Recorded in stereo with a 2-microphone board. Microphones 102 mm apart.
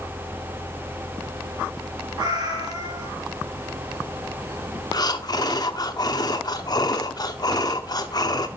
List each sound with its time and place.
2.2 s a cat meowing: 40° right (ahead or behind), 3.5 m
4.9 s breathing: 40° left (ahead or behind), 0.8 m